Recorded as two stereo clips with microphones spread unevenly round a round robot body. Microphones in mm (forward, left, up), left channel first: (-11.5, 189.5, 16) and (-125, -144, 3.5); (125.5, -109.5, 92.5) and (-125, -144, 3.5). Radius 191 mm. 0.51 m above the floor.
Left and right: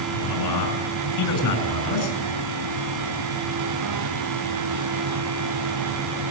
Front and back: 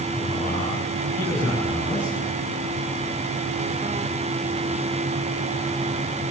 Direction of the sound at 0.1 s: 105° left.